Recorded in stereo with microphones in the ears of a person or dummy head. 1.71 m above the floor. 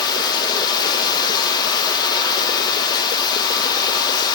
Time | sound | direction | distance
0.0 | running water | 25° left (ahead or behind) | 1.4 m